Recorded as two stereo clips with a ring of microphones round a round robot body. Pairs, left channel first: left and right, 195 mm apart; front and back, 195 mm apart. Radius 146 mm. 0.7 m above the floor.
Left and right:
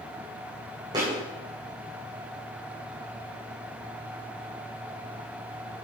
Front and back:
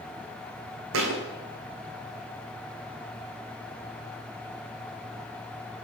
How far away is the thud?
About 2 m.